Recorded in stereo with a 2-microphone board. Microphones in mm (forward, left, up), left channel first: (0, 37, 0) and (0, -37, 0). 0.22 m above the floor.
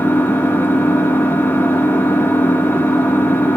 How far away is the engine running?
About 1.2 m.